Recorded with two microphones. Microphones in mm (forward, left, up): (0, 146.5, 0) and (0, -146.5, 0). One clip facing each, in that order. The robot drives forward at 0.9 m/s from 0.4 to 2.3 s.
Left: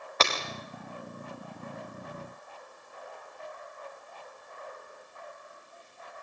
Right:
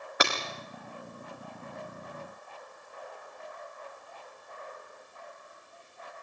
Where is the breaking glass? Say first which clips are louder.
Even; 15° right (ahead or behind), 6 m.